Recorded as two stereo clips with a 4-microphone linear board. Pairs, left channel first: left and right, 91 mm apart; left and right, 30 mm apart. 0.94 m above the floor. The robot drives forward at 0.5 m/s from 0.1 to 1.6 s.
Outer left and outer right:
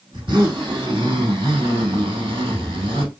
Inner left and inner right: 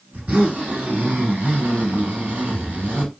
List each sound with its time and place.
0.1 s a zipper: 60° right (ahead or behind), 2 m; by 3.1 s 70° right (ahead or behind), 2.0 m